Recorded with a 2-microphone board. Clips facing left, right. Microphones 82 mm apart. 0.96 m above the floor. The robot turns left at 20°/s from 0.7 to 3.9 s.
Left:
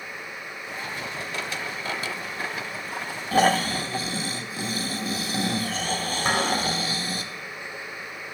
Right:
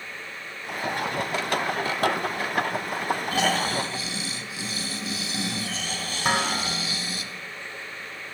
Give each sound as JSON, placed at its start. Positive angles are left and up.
{"t": 3.3, "sound": "snoring", "side_deg": 40, "distance_m": 0.7}
{"t": 6.2, "sound": "dishes clattering", "side_deg": -5, "distance_m": 1.9}